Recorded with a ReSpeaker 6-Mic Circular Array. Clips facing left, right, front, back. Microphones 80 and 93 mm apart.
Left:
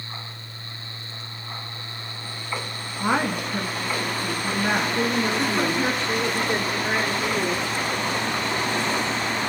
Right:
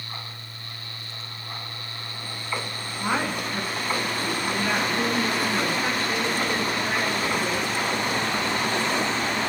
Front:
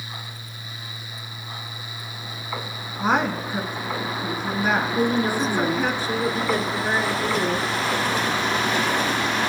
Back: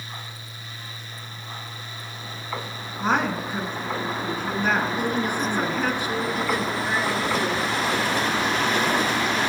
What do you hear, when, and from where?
3.0 s a woman speaking: 70° left, 1.5 m
5.0 s a woman speaking: 40° left, 1.8 m